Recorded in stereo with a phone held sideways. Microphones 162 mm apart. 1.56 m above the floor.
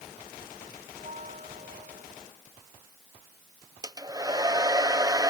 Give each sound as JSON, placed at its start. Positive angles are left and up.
{"t": 0.9, "sound": "a bell", "side_deg": -45}
{"t": 3.8, "sound": "a hair dryer", "side_deg": -20}